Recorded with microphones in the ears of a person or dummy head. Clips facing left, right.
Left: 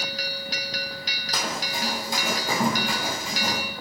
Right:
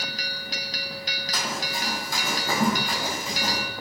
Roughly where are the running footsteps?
Left.